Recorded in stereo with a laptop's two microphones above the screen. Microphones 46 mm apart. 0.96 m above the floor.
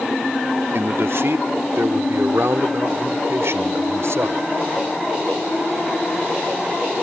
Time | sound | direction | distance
0.7 | a man speaking | 65° right (ahead or behind) | ?